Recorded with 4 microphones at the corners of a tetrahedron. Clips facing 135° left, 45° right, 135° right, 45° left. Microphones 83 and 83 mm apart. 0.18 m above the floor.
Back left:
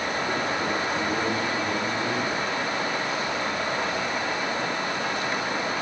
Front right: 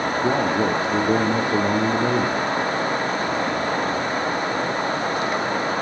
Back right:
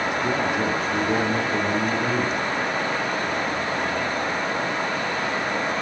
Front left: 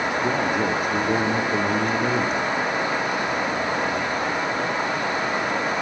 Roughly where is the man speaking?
Ahead right.